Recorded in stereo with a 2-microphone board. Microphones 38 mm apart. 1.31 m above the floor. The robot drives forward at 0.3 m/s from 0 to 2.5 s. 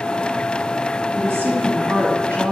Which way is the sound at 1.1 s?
90° right.